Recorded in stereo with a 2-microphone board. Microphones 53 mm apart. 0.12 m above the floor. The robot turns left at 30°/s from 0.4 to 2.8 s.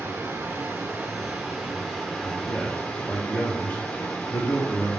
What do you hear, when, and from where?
0.0 s running water: 125° right, 1.6 m; by 5.0 s 165° left, 1.6 m
2.2 s a man speaking: 30° left (ahead or behind), 1.2 m